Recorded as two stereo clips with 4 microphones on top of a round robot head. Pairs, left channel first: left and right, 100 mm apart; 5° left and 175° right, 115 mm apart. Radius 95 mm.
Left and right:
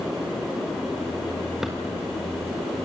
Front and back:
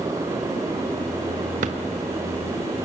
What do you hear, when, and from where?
1.6 s a drawer: 175° right, 1.1 m